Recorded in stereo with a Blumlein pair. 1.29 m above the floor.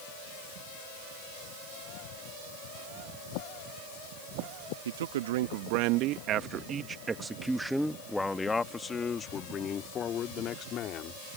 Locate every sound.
4.8 s a man speaking: 60° right; by 11.2 s 35° left